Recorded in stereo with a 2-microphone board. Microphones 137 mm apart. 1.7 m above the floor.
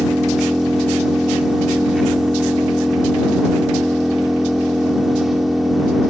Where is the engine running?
Centre (ahead or behind).